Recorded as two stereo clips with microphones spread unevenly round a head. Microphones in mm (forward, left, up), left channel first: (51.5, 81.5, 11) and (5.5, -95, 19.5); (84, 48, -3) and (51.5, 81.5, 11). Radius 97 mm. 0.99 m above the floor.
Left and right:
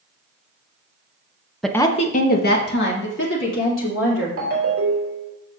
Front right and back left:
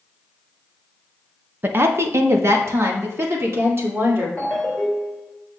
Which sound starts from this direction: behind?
A woman speaking, at 1.6 s.